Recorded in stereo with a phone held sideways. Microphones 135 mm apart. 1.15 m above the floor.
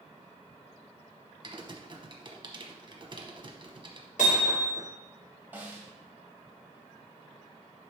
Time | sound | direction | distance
1.4 | typing on a keyboard | 35° right (ahead or behind) | 1.0 m
4.2 | hammering | 75° left (ahead or behind) | 3 m
5.5 | a snare drum | 15° right (ahead or behind) | 1.9 m